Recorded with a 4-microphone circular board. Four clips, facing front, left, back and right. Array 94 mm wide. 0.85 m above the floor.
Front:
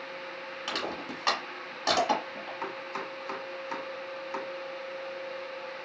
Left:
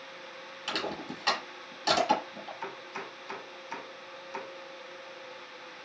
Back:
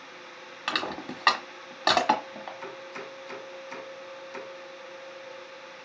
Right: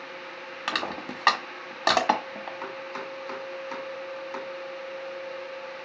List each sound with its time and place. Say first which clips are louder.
0.7 s crushing: right 4 dB, back 3 dB; 120° right, 1.5 m
2.6 s chopping: right 5 dB, front 3 dB; 40° right, 2.5 m